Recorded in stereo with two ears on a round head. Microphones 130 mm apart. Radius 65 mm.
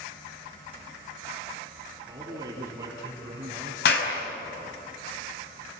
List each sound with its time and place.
2.1 s a man speaking: 25° right (ahead or behind), 5.5 m
3.9 s a clap: 85° left, 5 m